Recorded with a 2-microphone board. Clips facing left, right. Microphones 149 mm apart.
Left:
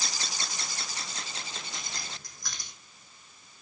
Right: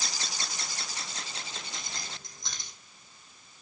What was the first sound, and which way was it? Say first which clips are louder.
Keys jangling: even; 25° right (ahead or behind).